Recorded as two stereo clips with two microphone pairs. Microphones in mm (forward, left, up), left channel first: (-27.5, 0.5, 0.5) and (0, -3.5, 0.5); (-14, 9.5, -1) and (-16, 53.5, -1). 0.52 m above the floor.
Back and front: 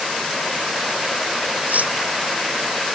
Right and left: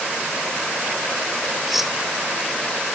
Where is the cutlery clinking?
10° left.